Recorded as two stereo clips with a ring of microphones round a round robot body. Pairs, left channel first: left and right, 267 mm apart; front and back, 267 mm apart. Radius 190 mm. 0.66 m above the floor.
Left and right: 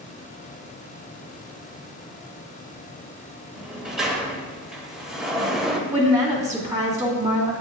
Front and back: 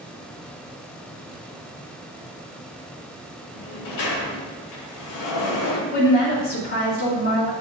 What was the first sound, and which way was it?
A sliding door, straight ahead.